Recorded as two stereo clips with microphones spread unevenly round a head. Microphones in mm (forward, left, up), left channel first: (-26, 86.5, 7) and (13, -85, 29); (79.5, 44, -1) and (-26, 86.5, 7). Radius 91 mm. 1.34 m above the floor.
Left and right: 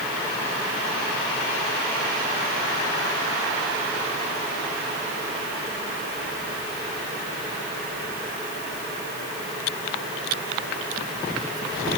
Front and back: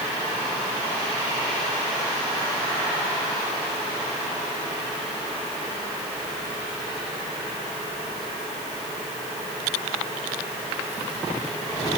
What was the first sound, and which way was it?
Only background noise.